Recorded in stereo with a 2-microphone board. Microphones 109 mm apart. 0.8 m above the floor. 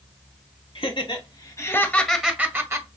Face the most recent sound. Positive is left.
turn(degrees=-30)  # may be behind; listen again after turning